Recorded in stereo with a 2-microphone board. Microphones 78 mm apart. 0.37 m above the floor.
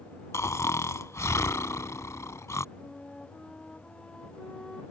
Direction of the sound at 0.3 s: 40° left (ahead or behind).